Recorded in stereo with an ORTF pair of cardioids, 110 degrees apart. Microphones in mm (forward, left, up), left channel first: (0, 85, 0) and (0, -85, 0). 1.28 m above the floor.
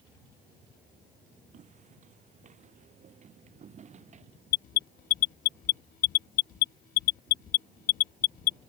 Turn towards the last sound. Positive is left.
turn(degrees=60)